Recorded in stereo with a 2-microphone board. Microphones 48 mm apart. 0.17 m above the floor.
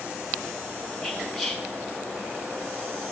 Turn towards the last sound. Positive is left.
turn(degrees=-5)  # may be behind; listen again after turning